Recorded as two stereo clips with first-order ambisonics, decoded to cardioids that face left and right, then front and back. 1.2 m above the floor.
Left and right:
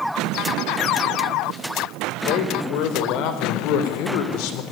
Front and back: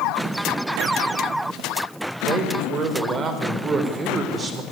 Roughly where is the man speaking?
Behind left.